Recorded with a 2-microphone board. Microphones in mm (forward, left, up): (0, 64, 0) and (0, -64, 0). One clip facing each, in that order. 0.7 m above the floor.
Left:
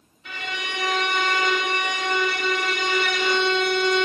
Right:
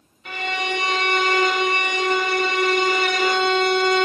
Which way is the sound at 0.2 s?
50° right (ahead or behind).